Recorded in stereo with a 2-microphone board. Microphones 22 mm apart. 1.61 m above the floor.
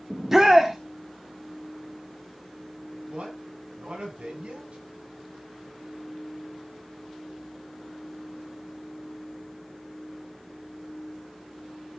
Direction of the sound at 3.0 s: 65° right (ahead or behind).